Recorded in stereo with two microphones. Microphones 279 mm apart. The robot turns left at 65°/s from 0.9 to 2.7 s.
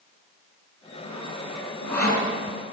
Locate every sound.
1.0 s sawing: 60° right (ahead or behind), 5.5 m; by 2.3 s 35° right (ahead or behind), 5.5 m